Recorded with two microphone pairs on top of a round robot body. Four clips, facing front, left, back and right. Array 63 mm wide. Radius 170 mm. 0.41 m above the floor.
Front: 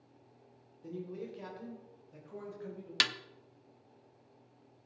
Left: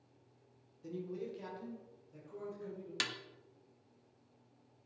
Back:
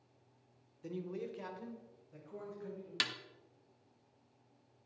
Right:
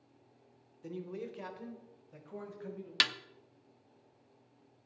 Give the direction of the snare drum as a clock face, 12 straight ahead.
2 o'clock.